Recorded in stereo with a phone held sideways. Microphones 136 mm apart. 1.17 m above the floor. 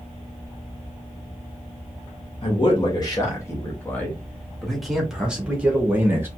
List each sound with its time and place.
2.4 s a man speaking: 40° left (ahead or behind), 1.8 m; by 6.3 s 15° right (ahead or behind), 2.5 m